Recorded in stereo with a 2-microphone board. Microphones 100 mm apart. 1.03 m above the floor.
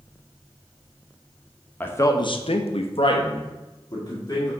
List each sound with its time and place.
1.8 s a man speaking: 15° left (ahead or behind), 0.9 m; by 4.5 s 40° left (ahead or behind), 2.5 m